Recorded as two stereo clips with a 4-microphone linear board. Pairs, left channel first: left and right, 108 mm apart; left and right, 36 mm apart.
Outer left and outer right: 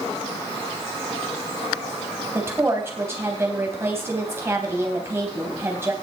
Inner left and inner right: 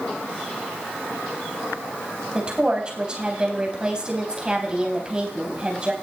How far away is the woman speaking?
About 3.5 m.